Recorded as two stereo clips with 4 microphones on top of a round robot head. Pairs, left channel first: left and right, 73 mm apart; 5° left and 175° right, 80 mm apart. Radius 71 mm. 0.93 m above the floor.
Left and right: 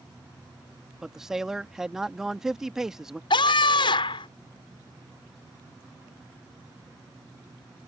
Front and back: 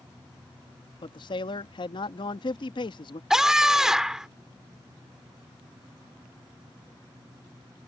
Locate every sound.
1.0 s a man speaking: 5° right
3.3 s a scream: 100° left